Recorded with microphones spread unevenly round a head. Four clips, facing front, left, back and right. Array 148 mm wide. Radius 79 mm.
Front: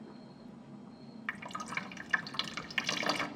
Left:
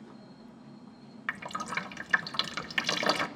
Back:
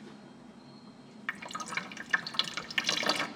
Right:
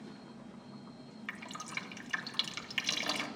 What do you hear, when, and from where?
1.3 s dripping: 115° left, 1.0 m